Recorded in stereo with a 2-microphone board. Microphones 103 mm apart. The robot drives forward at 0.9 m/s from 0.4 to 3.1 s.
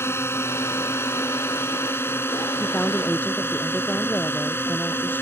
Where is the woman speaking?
15° left (ahead or behind).